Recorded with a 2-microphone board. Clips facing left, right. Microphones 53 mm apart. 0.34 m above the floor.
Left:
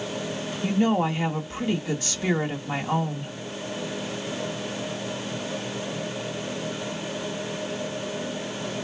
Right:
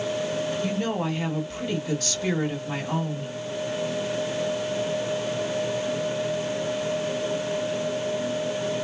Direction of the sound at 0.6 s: 15° left (ahead or behind).